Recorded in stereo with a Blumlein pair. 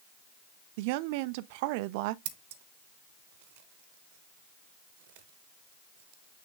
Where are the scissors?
50° right, 1.1 m.